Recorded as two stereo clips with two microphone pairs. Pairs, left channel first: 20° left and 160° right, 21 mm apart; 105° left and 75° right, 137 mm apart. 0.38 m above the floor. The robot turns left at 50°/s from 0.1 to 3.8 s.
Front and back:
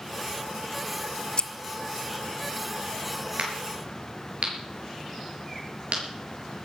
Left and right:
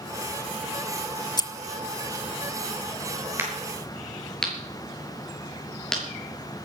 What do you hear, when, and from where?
1.4 s scissors: 55° left, 0.6 m; by 1.5 s 50° left, 0.6 m
3.4 s a crack: 150° right, 6.5 m; by 6.0 s 170° right, 6.5 m